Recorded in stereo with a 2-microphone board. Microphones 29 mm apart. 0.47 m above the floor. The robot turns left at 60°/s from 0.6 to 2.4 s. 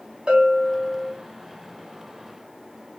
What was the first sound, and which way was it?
A bell, 145° right.